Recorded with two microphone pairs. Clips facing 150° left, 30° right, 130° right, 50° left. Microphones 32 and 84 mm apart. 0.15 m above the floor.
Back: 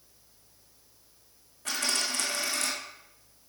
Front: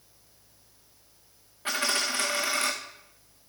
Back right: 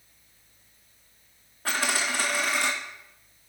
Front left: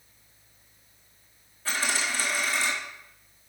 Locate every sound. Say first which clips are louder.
1.6 s a dropped coin: front 3 dB, back right 2 dB; 90° right, 2 m